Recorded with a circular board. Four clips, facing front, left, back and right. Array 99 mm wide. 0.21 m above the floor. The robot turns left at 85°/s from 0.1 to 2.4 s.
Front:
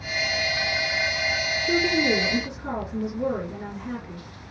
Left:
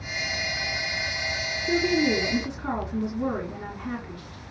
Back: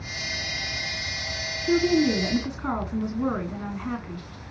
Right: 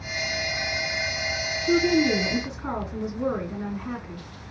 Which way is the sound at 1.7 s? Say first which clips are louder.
Right 3 dB, back 3 dB; 110° right.